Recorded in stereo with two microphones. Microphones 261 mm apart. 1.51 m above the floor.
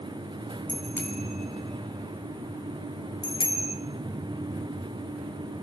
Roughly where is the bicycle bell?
Centre.